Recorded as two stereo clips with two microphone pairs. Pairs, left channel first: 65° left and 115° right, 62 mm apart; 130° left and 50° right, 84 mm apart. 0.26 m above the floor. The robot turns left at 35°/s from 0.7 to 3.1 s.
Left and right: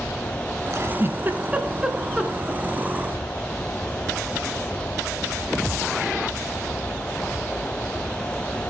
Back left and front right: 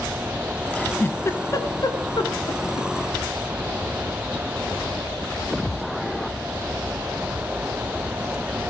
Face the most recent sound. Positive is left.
turn(degrees=125)